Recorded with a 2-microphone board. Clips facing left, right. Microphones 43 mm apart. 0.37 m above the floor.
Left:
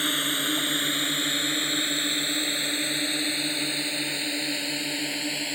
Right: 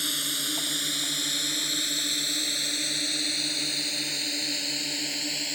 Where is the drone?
30° left (ahead or behind); by 5.6 s 15° left (ahead or behind).